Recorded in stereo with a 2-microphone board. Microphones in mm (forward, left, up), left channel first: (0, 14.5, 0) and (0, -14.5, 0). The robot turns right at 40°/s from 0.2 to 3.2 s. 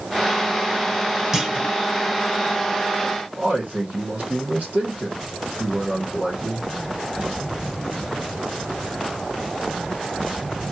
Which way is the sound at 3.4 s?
65° right (ahead or behind).